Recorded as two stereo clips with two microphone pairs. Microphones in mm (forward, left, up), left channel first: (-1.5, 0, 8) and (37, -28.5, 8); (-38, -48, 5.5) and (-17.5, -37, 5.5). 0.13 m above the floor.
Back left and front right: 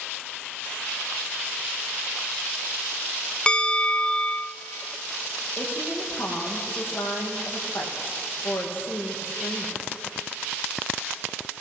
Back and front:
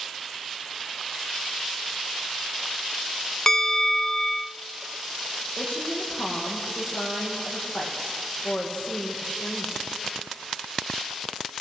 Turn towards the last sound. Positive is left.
turn(degrees=-170)